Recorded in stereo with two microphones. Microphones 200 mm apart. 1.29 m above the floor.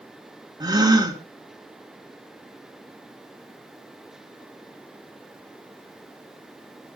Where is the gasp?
20° right (ahead or behind), 2.5 m.